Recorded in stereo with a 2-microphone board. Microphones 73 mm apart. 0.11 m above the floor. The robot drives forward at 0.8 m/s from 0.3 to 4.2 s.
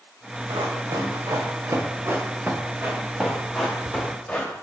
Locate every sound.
0.5 s running footsteps: 70° right (ahead or behind), 2 m; by 4.5 s 15° left (ahead or behind), 2.5 m